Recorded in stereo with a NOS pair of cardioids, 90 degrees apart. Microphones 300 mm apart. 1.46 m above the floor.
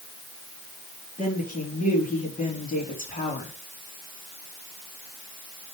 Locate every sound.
1.2 s a woman speaking: 25° left, 3.5 m